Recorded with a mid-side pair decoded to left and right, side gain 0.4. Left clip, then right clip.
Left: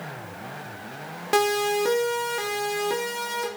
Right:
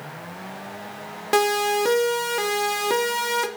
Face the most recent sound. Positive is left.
turn(degrees=-55)